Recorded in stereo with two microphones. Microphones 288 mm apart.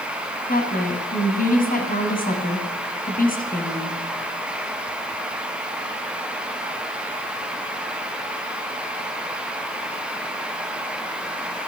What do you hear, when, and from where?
0.5 s a woman speaking: 30° left (ahead or behind), 1.5 m